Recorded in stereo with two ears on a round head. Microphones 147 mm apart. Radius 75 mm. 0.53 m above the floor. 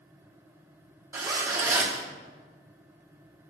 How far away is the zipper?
About 1.3 m.